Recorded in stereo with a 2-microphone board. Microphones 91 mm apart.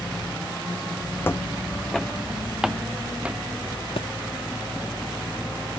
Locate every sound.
1.2 s footsteps: 25° left (ahead or behind); by 3.4 s 15° right (ahead or behind)
4.0 s a thud: 80° left